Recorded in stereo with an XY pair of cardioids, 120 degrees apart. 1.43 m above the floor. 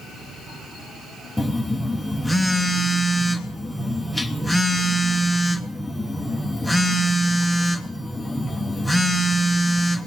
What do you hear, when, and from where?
1.4 s a phone buzzing: straight ahead, 0.9 m